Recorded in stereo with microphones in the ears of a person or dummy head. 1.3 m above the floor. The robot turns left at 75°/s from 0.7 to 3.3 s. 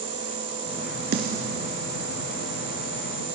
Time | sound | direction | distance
1.1 | a snare drum | 60° right (ahead or behind) | 2.5 m